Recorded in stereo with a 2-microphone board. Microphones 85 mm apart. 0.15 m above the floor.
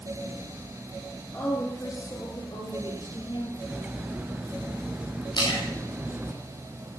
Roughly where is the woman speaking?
Left.